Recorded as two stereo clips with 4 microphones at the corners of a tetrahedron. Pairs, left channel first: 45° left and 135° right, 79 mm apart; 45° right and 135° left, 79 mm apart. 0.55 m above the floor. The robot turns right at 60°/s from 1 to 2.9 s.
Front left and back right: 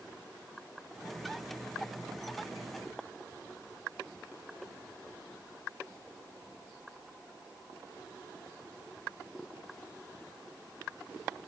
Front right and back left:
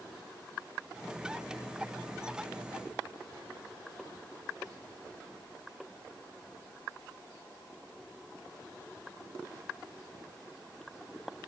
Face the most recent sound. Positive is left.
No sound to turn to.